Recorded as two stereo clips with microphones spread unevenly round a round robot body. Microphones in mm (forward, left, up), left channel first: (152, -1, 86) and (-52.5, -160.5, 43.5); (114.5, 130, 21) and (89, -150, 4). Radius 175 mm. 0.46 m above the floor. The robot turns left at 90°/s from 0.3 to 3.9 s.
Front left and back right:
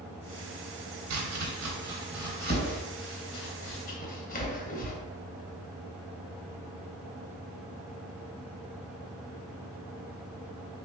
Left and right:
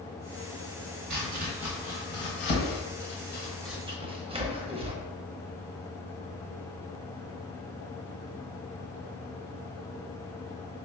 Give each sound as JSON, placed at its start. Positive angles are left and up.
{"t": 1.1, "sound": "chopping", "azimuth_deg": -130, "distance_m": 0.9}